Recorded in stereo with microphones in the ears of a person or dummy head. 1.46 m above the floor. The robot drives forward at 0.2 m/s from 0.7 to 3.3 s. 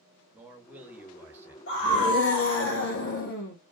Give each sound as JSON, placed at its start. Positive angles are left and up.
{"t": 0.3, "sound": "a man speaking", "side_deg": -10, "distance_m": 0.7}
{"t": 1.7, "sound": "a scream", "side_deg": 65, "distance_m": 1.1}